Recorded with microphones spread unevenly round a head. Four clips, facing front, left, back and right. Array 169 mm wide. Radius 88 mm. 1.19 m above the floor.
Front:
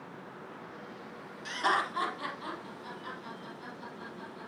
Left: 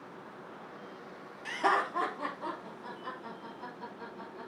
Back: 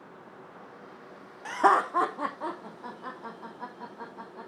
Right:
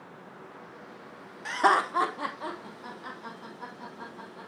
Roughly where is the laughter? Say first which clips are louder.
Right 5 dB, back 8 dB; behind right.